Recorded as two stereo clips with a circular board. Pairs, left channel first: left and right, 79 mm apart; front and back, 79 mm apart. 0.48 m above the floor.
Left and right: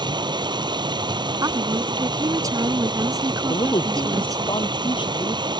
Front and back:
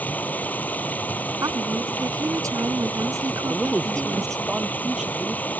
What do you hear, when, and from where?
0.0 s running water: 70° right
1.4 s a woman speaking: 135° right
3.5 s a man speaking: 100° left